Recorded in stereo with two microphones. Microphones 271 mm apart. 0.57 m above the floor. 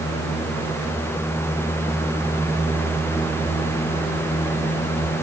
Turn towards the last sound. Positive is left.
No sound to turn to.